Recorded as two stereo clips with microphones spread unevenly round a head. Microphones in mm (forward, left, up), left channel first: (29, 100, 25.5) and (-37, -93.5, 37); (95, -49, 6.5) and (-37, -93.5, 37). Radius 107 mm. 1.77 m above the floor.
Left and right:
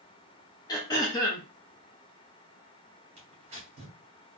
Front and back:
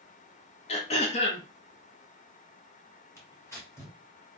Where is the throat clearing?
5° left, 0.6 m.